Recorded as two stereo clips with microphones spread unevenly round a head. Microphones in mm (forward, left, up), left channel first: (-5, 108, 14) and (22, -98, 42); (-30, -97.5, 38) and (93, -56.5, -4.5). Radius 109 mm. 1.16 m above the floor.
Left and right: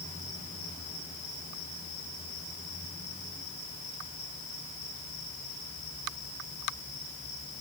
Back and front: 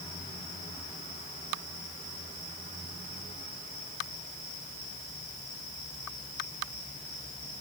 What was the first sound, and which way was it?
Only background noise.